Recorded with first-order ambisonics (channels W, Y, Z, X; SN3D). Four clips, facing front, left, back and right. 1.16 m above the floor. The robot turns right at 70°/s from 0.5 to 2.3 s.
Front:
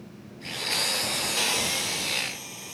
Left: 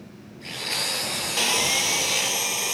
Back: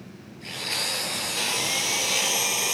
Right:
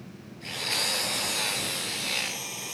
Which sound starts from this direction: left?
Sawing, at 1.4 s.